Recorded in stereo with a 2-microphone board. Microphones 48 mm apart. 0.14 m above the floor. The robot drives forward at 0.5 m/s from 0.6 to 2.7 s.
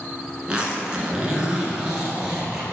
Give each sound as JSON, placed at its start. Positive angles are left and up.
{"t": 0.5, "sound": "a zipper", "side_deg": -20, "distance_m": 1.3}